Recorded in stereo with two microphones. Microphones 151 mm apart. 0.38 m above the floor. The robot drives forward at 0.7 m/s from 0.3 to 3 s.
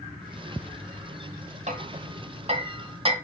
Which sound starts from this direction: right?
Hammering, at 1.7 s.